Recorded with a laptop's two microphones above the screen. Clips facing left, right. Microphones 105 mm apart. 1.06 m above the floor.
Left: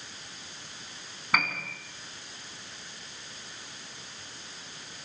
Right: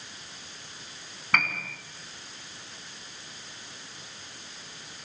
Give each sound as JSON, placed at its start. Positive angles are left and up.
{"t": 1.3, "sound": "a piano", "side_deg": 5, "distance_m": 4.0}